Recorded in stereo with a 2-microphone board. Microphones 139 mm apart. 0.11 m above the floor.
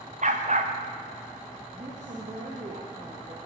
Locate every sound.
0.2 s a dog barking: 60° right (ahead or behind), 3 m
1.7 s a woman speaking: 50° right (ahead or behind), 5 m